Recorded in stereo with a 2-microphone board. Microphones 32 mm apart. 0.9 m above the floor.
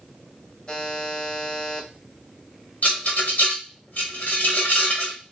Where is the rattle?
60° left (ahead or behind), 1.6 m.